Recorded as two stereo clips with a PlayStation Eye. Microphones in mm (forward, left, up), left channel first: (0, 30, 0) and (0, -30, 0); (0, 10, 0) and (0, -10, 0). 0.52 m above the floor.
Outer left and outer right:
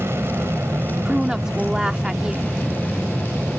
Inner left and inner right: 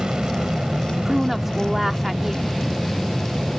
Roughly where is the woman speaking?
Centre.